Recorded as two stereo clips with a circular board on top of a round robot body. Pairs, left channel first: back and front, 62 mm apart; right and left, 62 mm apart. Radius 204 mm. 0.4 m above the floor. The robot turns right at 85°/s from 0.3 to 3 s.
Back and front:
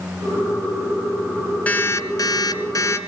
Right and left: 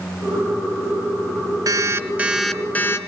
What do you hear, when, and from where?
1.7 s an alarm clock: 115° left, 1.9 m; by 3.0 s 130° right, 1.9 m